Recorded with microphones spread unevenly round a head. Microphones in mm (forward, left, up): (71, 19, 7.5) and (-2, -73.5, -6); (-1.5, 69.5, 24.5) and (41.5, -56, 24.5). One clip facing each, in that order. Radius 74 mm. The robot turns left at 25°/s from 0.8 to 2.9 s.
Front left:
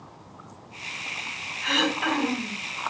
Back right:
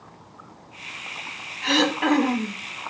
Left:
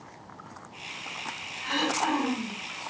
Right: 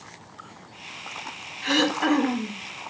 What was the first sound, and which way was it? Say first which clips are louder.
Throat clearing: back right 5 dB, right 6 dB; 70° right.